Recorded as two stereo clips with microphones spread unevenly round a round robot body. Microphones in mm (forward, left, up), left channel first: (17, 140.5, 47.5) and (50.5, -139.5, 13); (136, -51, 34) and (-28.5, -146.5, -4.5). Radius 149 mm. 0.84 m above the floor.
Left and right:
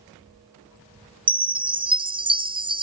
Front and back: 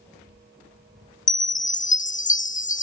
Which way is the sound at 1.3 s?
20° right.